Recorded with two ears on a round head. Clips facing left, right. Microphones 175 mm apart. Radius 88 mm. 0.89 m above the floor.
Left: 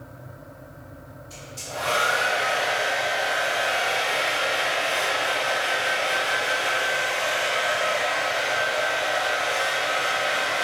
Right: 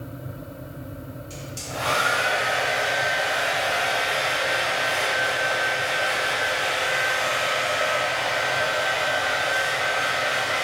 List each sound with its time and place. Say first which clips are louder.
1.3 s a hair dryer: left 1 dB; 30° right (ahead or behind), 1.2 m